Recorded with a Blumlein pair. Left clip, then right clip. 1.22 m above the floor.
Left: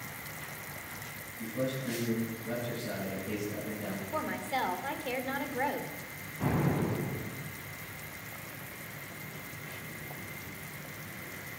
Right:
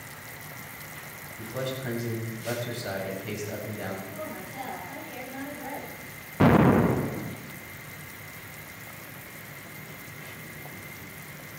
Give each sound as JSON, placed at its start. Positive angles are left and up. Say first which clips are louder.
{"t": 1.4, "sound": "a man speaking", "louder": "right 2 dB", "azimuth_deg": -45, "distance_m": 7.0}
{"t": 4.1, "sound": "a woman speaking", "louder": "left 4 dB", "azimuth_deg": 40, "distance_m": 3.0}
{"t": 6.4, "sound": "an explosion", "louder": "right 12 dB", "azimuth_deg": -50, "distance_m": 1.0}